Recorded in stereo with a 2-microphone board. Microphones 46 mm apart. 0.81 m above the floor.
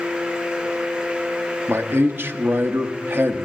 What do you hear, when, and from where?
1.7 s a man speaking: 55° right (ahead or behind), 0.9 m